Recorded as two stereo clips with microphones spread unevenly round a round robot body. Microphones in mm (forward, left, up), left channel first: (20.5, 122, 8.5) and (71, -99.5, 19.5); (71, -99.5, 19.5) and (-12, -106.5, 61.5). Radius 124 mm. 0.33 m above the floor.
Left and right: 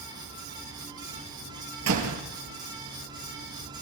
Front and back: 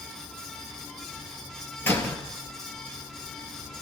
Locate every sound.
1.8 s a door slam: 60° right, 4.5 m